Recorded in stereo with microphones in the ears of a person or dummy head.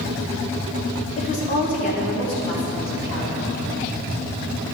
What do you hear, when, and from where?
1.2 s a woman speaking: 35° left (ahead or behind), 1.1 m; by 3.6 s 70° left (ahead or behind), 3.5 m